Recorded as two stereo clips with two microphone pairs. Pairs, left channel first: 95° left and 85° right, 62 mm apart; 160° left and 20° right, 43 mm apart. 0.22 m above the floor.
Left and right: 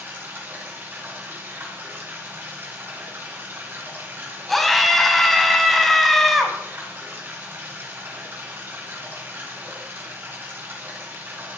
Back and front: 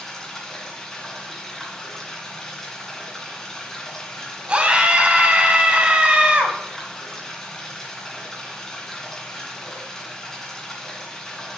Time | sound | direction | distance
0.0 | running water | 125° right | 2 m
4.5 | a scream | 15° left | 1.3 m